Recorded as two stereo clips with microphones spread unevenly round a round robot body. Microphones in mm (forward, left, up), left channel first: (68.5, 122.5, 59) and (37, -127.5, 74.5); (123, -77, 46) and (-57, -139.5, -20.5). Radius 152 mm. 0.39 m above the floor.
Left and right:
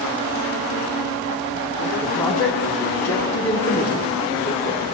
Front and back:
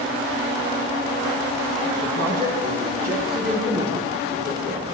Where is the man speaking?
165° left, 3.5 m.